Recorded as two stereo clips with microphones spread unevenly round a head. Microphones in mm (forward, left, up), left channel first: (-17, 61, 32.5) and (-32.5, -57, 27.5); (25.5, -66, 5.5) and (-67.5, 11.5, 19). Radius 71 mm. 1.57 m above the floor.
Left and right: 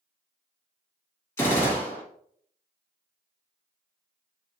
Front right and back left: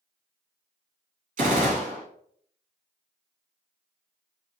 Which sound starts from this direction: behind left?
A gunshot, at 1.4 s.